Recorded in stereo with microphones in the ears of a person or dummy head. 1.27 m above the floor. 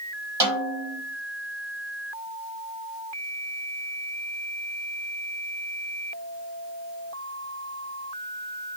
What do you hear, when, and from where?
0.4 s a snare drum: 15° right (ahead or behind), 2 m